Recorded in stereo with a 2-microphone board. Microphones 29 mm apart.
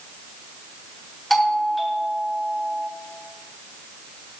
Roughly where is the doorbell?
Centre.